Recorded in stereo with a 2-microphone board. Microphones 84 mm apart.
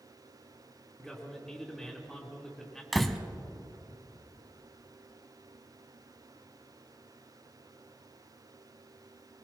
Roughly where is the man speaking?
Centre.